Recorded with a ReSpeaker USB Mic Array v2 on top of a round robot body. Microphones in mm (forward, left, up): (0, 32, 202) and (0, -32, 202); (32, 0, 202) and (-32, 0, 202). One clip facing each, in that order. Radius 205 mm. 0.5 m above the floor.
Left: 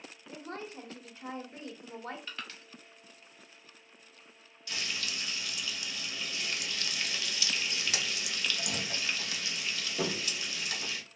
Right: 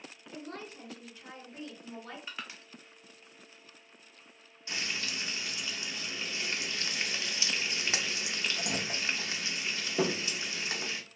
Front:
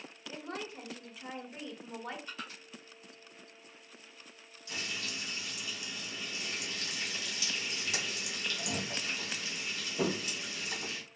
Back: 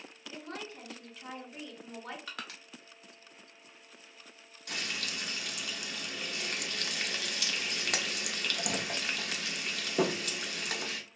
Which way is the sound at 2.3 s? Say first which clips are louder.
Even, back 1 dB; 165° right.